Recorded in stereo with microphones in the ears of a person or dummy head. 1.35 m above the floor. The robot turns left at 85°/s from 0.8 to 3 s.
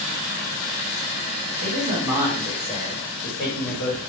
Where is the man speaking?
120° right, 1.5 m; by 4.1 s 125° left, 1.5 m.